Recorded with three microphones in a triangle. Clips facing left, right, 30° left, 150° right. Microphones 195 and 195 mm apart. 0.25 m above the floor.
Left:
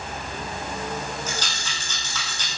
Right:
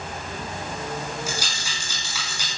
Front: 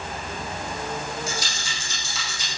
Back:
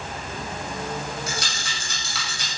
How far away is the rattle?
About 8 m.